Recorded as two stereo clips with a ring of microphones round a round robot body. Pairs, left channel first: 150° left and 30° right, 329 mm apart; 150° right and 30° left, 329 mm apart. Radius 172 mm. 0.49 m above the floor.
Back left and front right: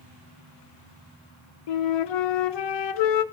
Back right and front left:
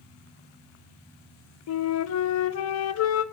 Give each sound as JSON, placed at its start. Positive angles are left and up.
{"t": 1.7, "sound": "a flute", "azimuth_deg": 160, "distance_m": 0.6}